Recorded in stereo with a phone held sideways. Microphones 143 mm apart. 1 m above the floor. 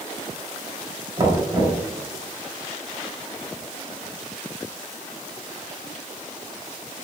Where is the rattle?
No rattle in this recording.